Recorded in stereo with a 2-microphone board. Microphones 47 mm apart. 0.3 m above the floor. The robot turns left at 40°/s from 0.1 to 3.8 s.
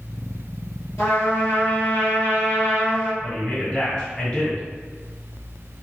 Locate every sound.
1.0 s a trumpet: 100° left, 1.9 m; by 3.1 s 10° left, 1.9 m
3.2 s a man speaking: 30° left (ahead or behind), 1.7 m; by 4.6 s 20° left (ahead or behind), 1.7 m